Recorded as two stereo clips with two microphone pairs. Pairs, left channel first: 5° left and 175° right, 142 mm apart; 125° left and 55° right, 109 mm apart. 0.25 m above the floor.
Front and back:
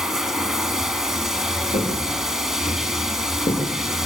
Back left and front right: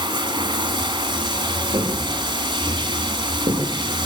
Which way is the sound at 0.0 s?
85° right.